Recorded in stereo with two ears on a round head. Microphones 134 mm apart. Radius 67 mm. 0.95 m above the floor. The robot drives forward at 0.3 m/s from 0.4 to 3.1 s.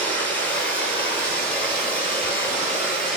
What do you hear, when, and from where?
0.0 s running water: 10° left (ahead or behind), 1.8 m; by 3.2 s 5° left (ahead or behind), 2.5 m